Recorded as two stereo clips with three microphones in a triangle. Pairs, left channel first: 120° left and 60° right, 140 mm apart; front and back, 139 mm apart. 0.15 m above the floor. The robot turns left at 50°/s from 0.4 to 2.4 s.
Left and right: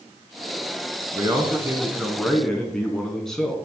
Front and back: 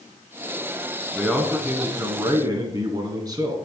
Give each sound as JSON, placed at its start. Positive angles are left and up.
{"t": 1.1, "sound": "a man speaking", "azimuth_deg": -95, "distance_m": 1.1}